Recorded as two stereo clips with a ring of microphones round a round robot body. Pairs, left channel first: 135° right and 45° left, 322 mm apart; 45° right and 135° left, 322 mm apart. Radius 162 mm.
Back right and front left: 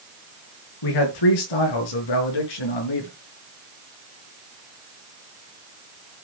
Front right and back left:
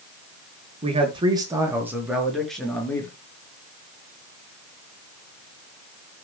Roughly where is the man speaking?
Behind right.